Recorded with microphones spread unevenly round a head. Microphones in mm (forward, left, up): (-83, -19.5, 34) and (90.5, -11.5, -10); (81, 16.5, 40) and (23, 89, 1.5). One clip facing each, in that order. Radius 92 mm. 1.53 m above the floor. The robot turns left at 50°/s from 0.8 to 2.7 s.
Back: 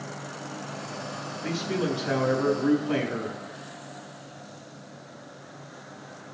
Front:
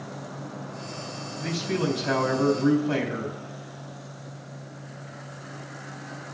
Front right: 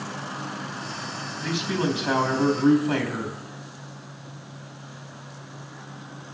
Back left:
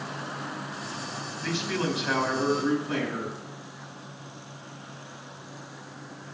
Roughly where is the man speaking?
Ahead left.